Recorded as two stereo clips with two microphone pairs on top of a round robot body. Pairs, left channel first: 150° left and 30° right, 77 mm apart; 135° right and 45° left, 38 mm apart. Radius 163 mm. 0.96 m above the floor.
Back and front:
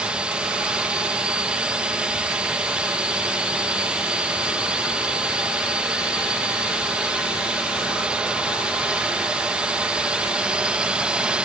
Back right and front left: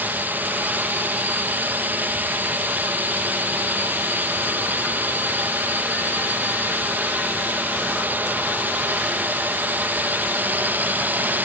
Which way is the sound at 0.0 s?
50° left.